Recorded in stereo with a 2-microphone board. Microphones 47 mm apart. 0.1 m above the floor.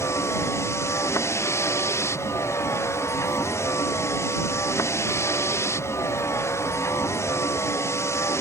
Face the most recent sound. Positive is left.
turn(degrees=75)  # may be behind; listen again after turning